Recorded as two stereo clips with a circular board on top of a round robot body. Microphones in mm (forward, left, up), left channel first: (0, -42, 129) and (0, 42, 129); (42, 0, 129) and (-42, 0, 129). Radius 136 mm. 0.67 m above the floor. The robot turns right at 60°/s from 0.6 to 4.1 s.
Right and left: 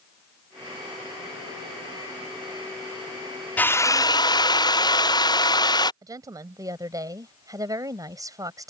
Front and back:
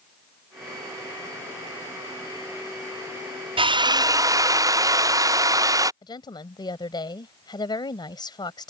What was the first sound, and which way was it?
A drill, 160° right.